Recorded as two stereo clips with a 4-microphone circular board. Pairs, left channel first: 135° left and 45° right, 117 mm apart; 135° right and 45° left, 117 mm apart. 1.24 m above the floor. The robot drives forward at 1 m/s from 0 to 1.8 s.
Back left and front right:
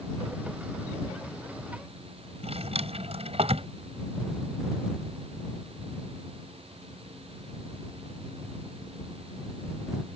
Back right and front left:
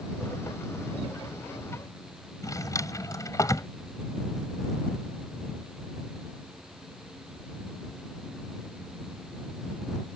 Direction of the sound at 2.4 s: 75° right.